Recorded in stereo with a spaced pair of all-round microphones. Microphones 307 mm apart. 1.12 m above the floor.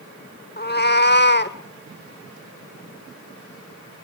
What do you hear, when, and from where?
0.6 s a cat meowing: 30° left (ahead or behind), 0.8 m; by 1.6 s 35° left (ahead or behind), 1.0 m